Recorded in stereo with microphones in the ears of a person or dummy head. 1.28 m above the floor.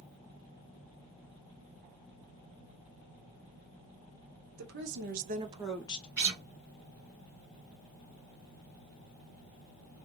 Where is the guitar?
15° right (ahead or behind), 1.3 m.